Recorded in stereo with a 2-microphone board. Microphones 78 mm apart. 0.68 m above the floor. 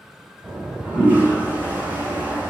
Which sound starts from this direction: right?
A toilet flushing, at 0.4 s.